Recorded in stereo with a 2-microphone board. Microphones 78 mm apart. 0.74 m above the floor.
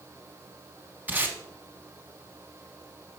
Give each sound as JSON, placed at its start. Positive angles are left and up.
{"t": 1.1, "sound": "tape being pulled", "side_deg": -20, "distance_m": 0.9}